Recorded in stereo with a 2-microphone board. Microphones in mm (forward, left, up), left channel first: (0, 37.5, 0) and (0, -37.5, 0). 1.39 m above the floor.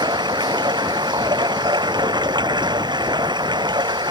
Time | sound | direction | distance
0.0 | running water | 80° right | ?